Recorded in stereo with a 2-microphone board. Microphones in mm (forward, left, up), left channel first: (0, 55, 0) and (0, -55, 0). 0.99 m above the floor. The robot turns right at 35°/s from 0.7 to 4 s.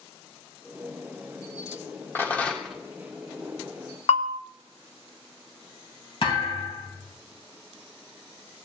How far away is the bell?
About 0.7 m.